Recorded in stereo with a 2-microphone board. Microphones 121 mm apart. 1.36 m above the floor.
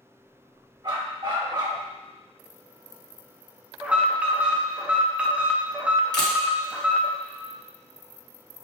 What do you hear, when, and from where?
0.8 s a dog barking: 45° right (ahead or behind), 1.9 m
3.8 s an alarm: 10° right (ahead or behind), 0.7 m
6.1 s a camera shutter: 35° left (ahead or behind), 1.0 m